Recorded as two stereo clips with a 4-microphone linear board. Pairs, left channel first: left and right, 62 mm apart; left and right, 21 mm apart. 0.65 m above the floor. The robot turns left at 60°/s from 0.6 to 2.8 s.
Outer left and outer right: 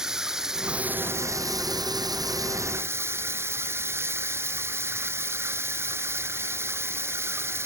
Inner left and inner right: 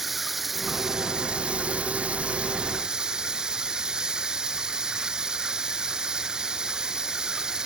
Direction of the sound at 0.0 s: 10° right.